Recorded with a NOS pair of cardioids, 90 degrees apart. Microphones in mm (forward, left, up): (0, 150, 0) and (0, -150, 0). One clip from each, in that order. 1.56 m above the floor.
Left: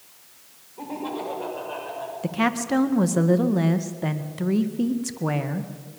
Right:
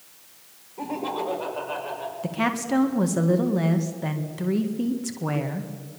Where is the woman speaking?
15° left, 1.7 m.